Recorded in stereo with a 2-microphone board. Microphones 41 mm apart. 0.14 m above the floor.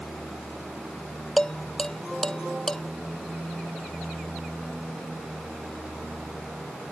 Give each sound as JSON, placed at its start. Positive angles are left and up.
{"t": 1.4, "sound": "dishes clattering", "side_deg": 15}